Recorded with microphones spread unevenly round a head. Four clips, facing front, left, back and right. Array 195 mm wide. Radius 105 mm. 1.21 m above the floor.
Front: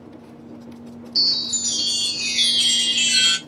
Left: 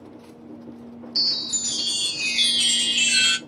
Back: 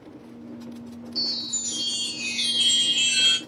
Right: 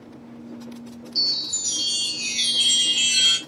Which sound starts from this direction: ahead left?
A chime, at 1.1 s.